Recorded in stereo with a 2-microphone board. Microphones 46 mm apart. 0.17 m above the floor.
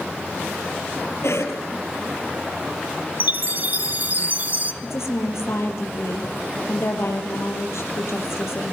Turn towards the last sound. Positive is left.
turn(degrees=75)  # may be behind; listen again after turning